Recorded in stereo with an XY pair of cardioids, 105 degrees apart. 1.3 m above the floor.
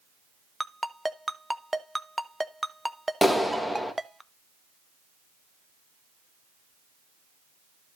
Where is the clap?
5° left, 1.6 m.